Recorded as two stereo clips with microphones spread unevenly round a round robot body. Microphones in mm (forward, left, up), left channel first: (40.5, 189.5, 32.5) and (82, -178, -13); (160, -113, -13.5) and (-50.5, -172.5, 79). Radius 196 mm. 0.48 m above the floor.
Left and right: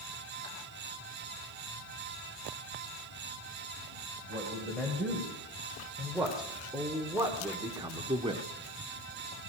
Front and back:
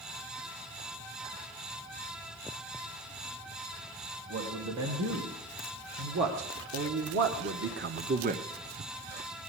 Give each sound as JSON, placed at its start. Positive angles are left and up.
{"t": 4.3, "sound": "a man speaking", "azimuth_deg": -175, "distance_m": 2.5}